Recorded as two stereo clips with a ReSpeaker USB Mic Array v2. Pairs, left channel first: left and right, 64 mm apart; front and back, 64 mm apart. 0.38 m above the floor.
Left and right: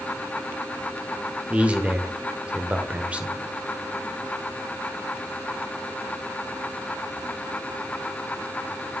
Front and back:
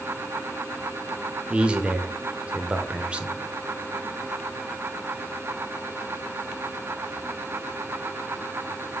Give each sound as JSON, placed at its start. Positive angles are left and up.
{"t": 1.5, "sound": "a man speaking", "azimuth_deg": -130, "distance_m": 0.8}